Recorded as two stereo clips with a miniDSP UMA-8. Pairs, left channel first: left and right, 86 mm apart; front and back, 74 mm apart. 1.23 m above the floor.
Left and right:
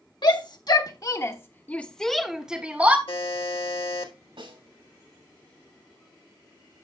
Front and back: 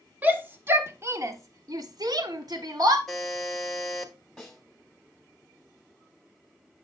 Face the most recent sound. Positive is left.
turn(degrees=-90)